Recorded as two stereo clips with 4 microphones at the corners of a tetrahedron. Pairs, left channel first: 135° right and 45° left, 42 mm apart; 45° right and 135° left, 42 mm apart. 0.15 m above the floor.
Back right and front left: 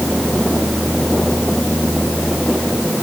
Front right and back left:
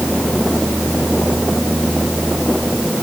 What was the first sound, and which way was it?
Only background noise.